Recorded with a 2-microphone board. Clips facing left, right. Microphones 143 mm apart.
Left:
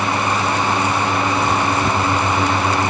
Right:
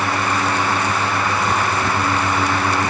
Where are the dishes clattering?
I don't hear dishes clattering.